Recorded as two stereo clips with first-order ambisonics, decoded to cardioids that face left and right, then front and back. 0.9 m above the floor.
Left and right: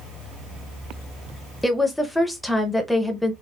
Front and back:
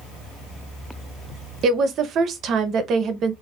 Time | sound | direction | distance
1.6 | a woman speaking | 175° left | 0.6 m